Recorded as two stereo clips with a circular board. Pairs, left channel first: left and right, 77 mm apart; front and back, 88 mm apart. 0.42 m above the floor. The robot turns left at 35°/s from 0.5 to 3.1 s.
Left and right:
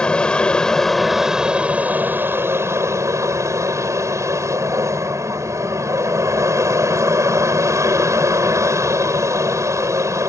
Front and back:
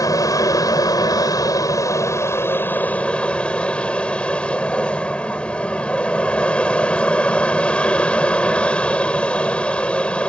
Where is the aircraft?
20° left; by 10.3 s 70° right.